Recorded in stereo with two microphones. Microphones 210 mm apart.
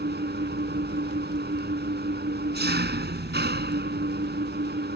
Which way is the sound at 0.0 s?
55° right (ahead or behind).